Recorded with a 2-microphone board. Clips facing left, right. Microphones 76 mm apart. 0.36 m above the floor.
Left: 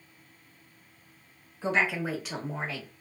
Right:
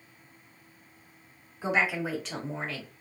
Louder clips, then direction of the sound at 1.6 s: Even; 15° right (ahead or behind).